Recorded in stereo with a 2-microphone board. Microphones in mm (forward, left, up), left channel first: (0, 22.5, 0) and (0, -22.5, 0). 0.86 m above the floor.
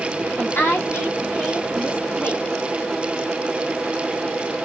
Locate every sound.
0.4 s a woman speaking: 60° left (ahead or behind), 1.4 m; by 2.5 s 45° left (ahead or behind), 3 m